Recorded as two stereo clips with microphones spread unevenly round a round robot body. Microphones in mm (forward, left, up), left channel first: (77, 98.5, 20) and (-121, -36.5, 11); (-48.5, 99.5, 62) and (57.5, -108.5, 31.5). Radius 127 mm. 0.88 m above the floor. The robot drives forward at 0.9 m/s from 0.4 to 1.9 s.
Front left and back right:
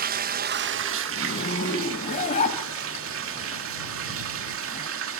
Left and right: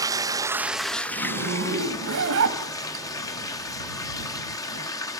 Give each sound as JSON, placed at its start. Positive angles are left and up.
{"t": 0.0, "sound": "running water", "azimuth_deg": -120, "distance_m": 0.7}
{"t": 1.1, "sound": "a zipper", "azimuth_deg": -20, "distance_m": 3.0}